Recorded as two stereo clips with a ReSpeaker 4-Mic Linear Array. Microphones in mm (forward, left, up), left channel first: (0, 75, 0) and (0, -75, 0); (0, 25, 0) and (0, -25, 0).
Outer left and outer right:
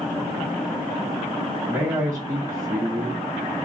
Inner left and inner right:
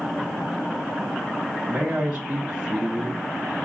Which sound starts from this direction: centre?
A man speaking, at 1.7 s.